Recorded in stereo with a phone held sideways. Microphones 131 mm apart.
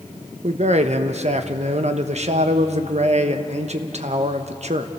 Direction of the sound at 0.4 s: 60° right (ahead or behind).